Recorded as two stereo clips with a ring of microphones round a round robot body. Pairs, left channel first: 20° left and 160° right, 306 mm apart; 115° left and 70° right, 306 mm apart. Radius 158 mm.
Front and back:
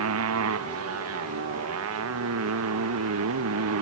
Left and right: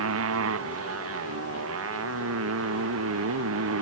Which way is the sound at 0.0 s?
115° right.